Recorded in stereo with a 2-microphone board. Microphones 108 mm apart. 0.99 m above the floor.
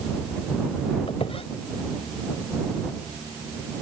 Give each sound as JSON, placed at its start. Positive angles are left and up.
{"t": 1.1, "sound": "a squeak", "side_deg": 65}